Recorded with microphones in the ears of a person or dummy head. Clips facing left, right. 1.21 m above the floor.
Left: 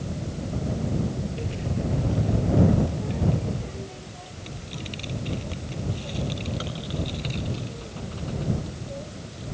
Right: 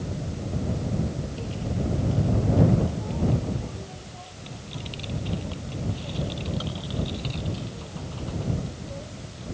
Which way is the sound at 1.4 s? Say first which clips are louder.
Left 1 dB; 25° left (ahead or behind).